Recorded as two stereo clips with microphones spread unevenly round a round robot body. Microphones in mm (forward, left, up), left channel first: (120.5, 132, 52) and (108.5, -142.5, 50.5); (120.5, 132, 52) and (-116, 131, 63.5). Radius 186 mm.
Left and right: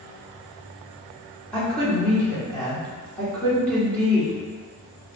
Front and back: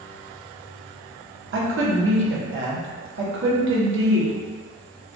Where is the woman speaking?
175° left, 1.1 m.